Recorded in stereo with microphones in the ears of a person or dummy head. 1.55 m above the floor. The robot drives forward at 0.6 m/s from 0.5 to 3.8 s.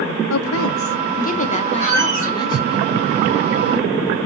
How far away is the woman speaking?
About 0.5 m.